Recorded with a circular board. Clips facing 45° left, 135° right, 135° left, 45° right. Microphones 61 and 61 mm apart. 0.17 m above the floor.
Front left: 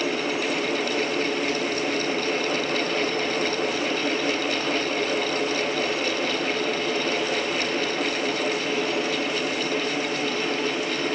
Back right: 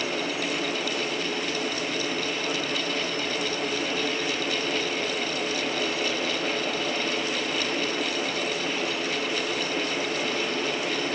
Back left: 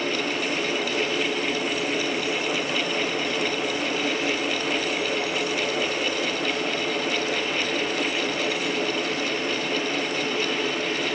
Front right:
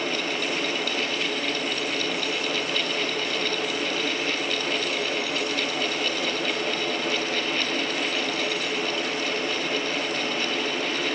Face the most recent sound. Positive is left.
No sound to turn to.